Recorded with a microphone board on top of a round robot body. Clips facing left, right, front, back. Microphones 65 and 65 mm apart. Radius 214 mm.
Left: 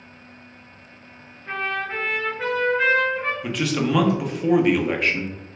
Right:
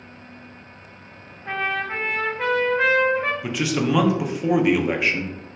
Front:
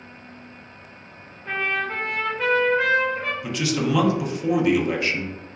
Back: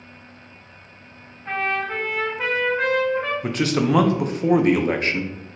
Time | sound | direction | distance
1.4 | a trumpet | 110° right | 0.6 m
3.4 | a man speaking | 170° right | 0.7 m